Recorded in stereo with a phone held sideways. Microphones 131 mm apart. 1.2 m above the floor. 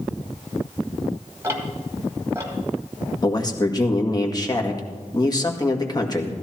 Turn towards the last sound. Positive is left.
turn(degrees=30)  # may be behind; listen again after turning